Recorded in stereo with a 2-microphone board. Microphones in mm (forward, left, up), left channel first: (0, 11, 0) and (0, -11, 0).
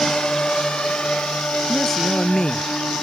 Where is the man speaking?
20° left (ahead or behind).